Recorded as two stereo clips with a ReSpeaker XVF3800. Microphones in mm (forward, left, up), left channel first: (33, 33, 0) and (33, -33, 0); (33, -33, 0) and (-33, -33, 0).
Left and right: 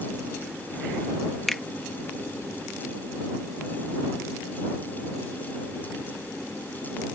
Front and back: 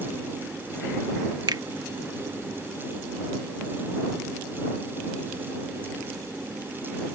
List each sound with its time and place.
1.5 s a finger snap: straight behind